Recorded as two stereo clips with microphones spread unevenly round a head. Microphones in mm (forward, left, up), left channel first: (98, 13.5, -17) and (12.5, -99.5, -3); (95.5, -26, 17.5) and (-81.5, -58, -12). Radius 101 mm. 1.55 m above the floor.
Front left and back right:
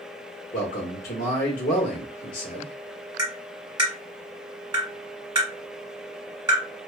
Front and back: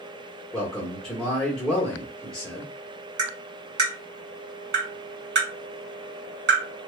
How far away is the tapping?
About 1.6 m.